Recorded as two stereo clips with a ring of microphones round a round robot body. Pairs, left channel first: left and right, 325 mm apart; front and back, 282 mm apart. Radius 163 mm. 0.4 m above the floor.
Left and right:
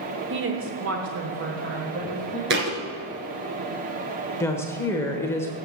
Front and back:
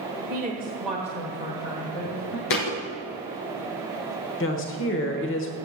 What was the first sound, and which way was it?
A woman speaking, 135° right.